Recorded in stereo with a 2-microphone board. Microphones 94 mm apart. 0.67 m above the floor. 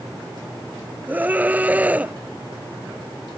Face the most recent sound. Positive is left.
turn(degrees=-15)  # may be behind; listen again after turning